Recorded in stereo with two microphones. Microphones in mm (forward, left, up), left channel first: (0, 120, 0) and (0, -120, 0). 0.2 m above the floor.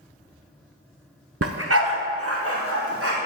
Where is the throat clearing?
I don't hear throat clearing.